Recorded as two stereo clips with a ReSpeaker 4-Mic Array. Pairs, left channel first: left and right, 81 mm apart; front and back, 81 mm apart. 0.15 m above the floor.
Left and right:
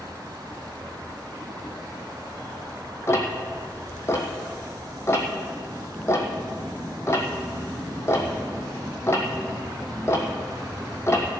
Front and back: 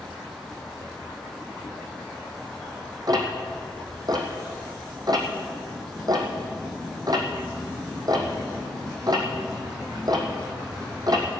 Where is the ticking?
145° left, 1.7 m.